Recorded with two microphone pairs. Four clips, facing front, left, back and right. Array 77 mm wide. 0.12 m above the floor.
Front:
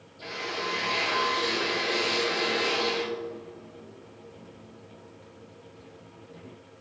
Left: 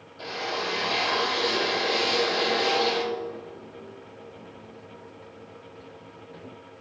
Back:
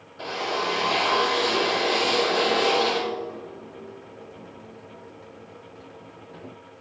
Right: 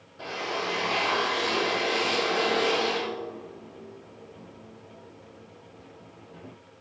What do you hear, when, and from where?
0.2 s a drill: straight behind, 1.8 m